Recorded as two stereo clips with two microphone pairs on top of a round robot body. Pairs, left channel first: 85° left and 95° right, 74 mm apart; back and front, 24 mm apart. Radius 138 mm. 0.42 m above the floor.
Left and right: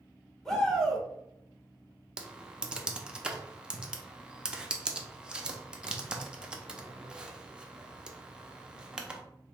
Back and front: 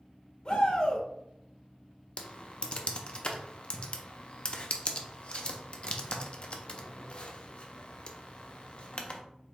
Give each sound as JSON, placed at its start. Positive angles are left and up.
{"t": 0.5, "sound": "a shout", "azimuth_deg": 175, "distance_m": 2.0}
{"t": 2.2, "sound": "typing on a keyboard", "azimuth_deg": -165, "distance_m": 0.8}